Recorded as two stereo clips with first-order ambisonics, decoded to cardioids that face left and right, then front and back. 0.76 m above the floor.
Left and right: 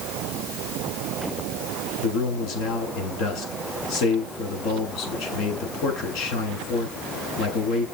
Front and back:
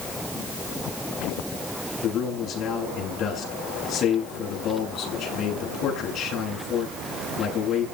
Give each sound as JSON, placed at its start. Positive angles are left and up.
{"t": 2.0, "sound": "a man speaking", "azimuth_deg": 55, "distance_m": 8.0}